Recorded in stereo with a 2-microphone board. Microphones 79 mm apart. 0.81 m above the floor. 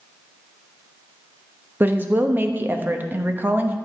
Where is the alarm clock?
No alarm clock in this recording.